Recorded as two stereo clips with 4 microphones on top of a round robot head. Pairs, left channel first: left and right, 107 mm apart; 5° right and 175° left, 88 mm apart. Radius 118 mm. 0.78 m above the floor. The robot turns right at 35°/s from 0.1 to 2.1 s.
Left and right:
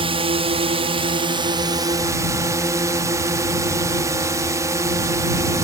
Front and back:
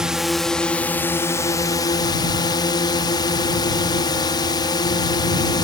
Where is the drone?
105° right; by 5.7 s 35° right.